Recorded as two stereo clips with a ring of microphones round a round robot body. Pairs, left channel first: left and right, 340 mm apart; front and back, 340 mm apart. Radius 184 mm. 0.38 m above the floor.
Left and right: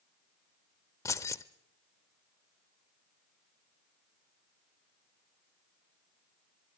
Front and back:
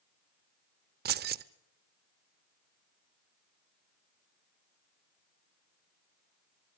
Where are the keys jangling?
160° left, 0.6 m.